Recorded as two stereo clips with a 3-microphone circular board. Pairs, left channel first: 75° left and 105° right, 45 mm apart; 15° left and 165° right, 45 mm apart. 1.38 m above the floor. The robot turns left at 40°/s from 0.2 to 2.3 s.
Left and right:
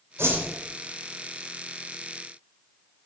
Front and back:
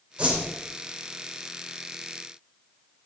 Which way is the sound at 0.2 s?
100° right.